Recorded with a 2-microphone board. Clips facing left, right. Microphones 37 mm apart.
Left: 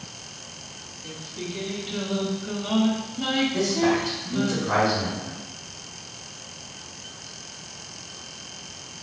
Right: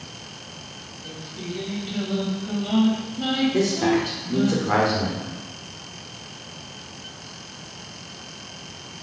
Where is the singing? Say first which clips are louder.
Even; 10° left (ahead or behind), 1.6 m.